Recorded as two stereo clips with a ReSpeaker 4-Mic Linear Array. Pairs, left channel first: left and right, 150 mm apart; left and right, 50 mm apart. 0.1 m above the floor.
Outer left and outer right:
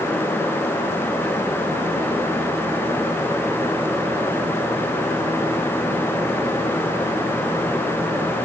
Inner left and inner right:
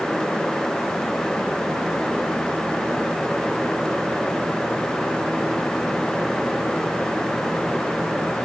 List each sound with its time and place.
Only background noise.